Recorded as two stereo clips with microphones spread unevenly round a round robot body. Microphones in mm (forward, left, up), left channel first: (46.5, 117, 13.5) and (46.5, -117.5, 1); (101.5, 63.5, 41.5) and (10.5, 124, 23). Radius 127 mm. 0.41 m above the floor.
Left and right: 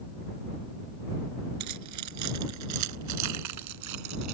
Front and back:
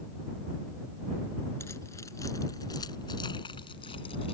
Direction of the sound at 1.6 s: 110° right.